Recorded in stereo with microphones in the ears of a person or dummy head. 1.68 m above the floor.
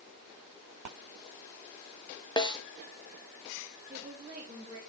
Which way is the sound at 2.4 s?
20° left (ahead or behind).